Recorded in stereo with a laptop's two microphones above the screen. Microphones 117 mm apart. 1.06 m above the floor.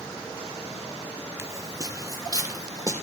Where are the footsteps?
25° right (ahead or behind), 1.2 m; by 2.9 s 30° right (ahead or behind), 3 m.